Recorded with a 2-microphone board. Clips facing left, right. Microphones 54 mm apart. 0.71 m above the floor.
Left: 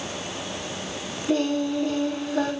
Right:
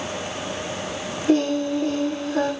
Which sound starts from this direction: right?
Singing, at 1.3 s.